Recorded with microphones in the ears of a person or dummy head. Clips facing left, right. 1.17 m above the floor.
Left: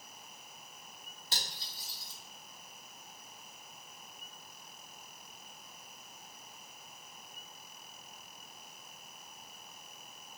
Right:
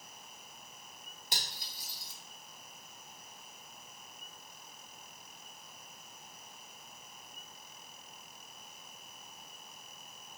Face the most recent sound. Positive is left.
turn(degrees=-15)  # may be behind; listen again after turning